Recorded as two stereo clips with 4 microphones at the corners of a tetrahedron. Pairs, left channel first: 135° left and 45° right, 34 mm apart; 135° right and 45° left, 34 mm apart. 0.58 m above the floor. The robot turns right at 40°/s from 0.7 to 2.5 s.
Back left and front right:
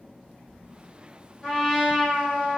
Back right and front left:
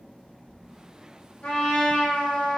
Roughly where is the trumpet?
Behind right.